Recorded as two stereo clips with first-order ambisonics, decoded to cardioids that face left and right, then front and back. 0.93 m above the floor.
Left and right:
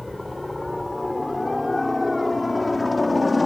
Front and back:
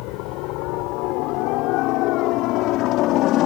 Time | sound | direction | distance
0.0 | a helicopter | 5° left | ?